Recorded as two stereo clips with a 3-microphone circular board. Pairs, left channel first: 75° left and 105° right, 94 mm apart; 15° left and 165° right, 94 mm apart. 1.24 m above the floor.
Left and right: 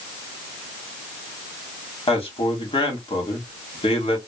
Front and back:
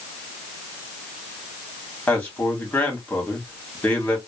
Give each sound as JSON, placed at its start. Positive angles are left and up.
{"t": 2.1, "sound": "a man speaking", "azimuth_deg": 85, "distance_m": 1.6}